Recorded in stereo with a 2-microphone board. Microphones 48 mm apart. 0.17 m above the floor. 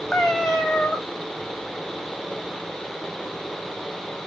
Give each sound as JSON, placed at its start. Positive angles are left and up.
{"t": 0.1, "sound": "a cat meowing", "side_deg": 15, "distance_m": 1.4}